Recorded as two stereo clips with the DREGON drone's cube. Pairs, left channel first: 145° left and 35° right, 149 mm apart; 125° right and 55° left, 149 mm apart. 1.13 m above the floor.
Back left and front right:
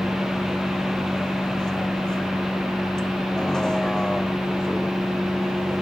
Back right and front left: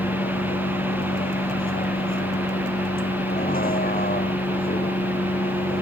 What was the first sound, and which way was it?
A vehicle, 130° right.